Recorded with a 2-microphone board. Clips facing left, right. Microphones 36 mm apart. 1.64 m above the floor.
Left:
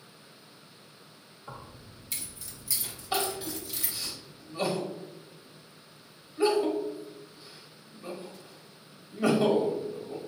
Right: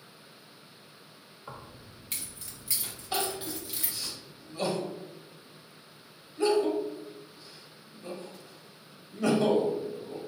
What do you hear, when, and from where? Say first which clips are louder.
1.5 s keys jangling: even; 45° right (ahead or behind), 1.6 m; by 4.1 s 10° right (ahead or behind), 1.4 m
3.1 s crying: left 2 dB; 20° left (ahead or behind), 1.0 m